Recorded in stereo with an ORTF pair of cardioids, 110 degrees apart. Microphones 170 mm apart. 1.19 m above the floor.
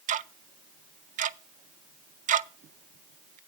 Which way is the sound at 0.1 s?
50° right.